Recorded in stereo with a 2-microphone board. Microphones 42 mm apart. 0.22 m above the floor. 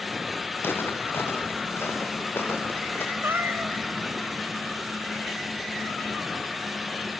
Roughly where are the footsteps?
Left.